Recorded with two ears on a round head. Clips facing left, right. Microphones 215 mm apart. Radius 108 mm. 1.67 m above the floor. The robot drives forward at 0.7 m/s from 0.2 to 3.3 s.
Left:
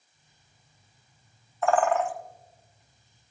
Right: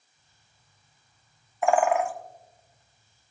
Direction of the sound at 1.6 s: 10° right (ahead or behind).